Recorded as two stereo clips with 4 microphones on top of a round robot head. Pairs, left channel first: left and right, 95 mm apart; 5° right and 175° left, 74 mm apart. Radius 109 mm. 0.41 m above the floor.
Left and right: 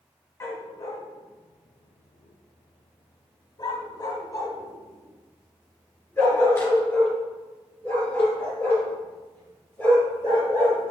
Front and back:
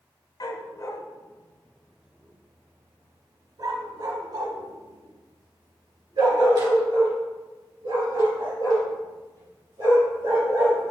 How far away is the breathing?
No breathing in this recording.